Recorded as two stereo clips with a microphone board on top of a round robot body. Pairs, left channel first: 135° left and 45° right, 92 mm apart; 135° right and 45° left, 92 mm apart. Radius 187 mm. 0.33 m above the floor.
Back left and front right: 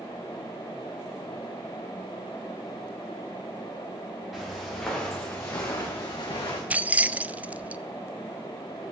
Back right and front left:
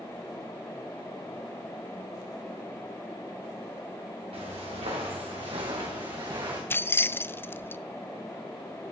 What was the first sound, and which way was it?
Footsteps, 40° left.